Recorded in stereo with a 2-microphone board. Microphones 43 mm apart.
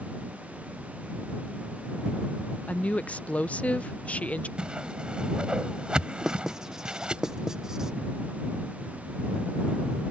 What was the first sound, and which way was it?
A woman speaking, 35° left (ahead or behind).